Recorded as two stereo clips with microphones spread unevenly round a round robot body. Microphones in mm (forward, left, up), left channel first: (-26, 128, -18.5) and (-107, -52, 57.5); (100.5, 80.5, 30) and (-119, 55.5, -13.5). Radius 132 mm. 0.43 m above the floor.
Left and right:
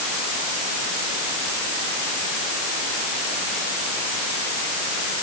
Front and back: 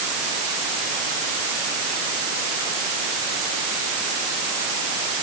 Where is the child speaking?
I don't hear a child speaking.